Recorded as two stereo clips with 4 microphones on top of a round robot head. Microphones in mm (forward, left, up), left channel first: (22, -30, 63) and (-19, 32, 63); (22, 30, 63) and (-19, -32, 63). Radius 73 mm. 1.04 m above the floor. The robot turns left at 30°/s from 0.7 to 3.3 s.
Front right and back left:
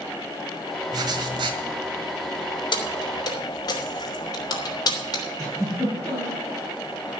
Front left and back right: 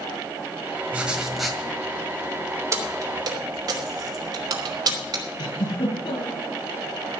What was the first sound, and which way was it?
Writing, 160° left.